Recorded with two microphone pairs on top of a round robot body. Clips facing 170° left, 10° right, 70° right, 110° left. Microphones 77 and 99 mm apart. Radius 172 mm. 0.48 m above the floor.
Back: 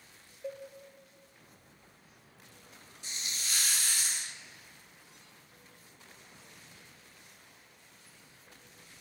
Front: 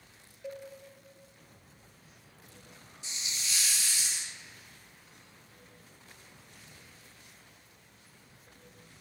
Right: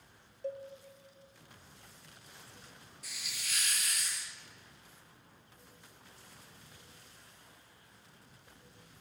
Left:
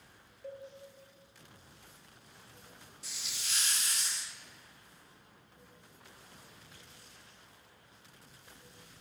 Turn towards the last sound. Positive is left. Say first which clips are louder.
# even, right 1 dB
turn(degrees=160)